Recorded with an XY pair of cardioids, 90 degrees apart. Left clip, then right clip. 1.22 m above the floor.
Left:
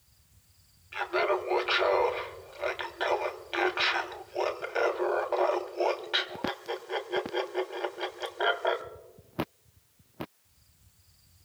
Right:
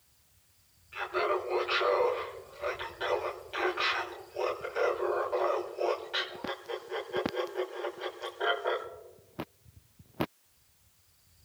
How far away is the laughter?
About 3 m.